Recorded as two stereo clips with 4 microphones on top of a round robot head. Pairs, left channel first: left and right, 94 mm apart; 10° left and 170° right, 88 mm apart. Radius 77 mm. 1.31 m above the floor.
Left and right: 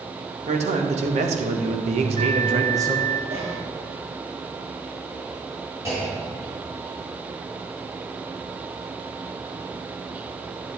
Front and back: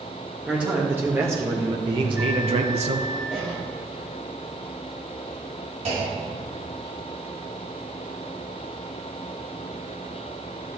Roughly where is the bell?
Right.